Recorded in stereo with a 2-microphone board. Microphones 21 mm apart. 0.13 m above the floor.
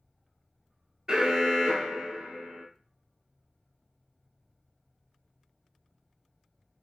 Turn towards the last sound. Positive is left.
turn(degrees=-25)  # may be behind; listen again after turning